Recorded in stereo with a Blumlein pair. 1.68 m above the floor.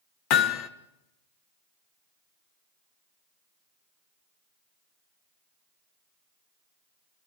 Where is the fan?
I don't hear a fan.